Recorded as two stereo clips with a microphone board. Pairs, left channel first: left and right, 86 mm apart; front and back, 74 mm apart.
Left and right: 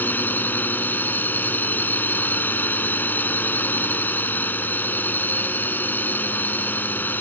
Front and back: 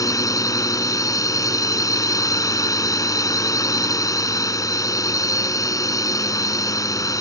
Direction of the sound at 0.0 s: 25° left.